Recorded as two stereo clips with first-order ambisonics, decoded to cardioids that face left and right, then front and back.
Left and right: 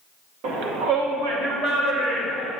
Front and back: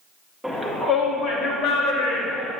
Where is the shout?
90° right, 1.0 m; by 2.5 s 45° right, 2 m.